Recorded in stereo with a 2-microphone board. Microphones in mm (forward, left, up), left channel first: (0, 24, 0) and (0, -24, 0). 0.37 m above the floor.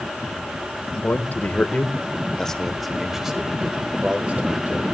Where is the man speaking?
45° left (ahead or behind), 1.5 m; by 4.8 s 35° right (ahead or behind), 1.7 m.